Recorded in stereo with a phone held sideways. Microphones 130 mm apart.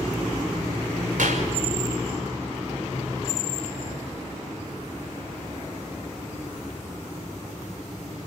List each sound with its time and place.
1.2 s a clap: 80° right, 5.5 m